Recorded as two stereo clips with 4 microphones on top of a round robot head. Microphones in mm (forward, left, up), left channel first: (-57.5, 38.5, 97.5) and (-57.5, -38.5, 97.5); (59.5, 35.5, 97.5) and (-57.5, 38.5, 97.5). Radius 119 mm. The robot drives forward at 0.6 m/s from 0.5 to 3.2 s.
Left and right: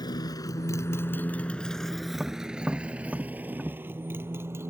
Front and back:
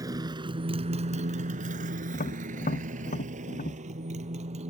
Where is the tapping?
5° right.